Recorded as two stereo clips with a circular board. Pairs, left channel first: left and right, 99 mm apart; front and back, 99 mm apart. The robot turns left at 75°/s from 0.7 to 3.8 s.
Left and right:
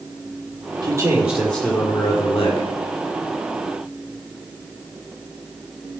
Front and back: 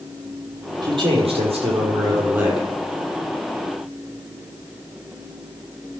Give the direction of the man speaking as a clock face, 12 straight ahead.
5 o'clock.